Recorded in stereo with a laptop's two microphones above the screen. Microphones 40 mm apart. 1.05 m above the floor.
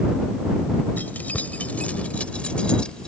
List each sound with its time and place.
1.0 s keys jangling: 45° left (ahead or behind); by 3.1 s 20° left (ahead or behind)